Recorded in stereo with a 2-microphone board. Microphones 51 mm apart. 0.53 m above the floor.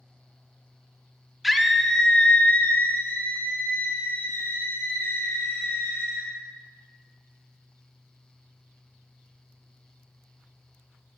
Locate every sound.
1.4 s a scream: 5° right (ahead or behind), 0.8 m; by 6.3 s 55° left (ahead or behind), 3 m